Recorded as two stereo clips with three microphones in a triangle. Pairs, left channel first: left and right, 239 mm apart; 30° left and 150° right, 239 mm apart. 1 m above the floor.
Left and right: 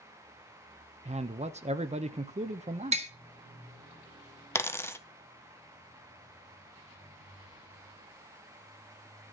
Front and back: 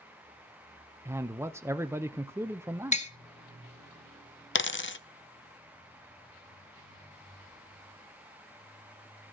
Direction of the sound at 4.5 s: 15° left.